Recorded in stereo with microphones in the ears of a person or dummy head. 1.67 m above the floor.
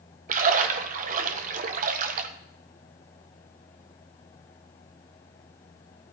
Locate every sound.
0.3 s a splash: 45° right (ahead or behind), 1.4 m